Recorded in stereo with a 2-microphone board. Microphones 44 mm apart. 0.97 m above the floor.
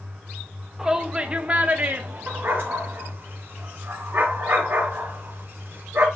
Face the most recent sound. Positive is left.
turn(degrees=-55)  # may be behind; listen again after turning